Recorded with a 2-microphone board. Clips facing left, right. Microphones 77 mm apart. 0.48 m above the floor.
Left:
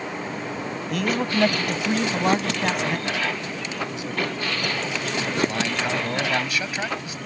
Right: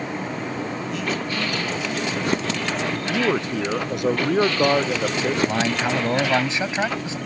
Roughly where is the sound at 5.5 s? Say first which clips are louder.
Right 3 dB; right.